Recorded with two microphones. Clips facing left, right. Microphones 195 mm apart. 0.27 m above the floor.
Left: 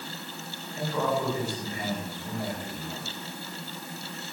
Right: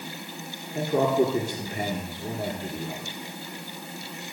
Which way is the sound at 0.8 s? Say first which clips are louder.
Right 7 dB; 70° right (ahead or behind).